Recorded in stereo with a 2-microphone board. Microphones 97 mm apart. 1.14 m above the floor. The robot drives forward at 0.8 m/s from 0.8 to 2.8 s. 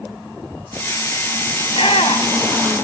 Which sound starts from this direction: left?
A shout, at 1.6 s.